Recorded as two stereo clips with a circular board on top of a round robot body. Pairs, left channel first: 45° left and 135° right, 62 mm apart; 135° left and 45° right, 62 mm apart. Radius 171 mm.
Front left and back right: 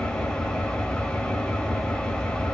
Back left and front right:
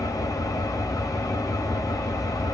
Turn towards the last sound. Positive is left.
turn(degrees=120)